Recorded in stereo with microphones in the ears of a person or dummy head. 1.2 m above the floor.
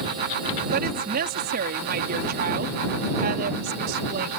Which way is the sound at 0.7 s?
50° right (ahead or behind).